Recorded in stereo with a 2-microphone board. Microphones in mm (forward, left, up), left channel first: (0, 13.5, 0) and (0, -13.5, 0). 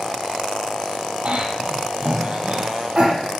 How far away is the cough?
About 6 m.